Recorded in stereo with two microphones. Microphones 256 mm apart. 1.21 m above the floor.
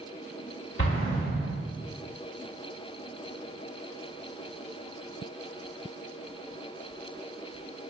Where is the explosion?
55° left (ahead or behind), 1.9 m.